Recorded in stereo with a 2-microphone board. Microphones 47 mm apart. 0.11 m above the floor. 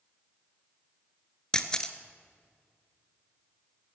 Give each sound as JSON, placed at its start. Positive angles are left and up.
{"t": 1.5, "sound": "a camera shutter", "side_deg": 15, "distance_m": 0.9}